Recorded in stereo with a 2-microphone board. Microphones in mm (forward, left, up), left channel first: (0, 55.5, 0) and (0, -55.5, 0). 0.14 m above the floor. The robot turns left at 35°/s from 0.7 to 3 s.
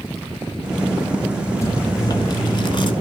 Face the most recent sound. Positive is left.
turn(degrees=95)